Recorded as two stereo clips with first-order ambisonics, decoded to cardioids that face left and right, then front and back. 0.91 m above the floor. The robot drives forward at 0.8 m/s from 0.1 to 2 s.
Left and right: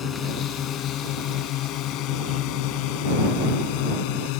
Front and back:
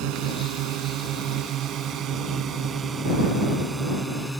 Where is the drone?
150° left; by 4.4 s 95° left.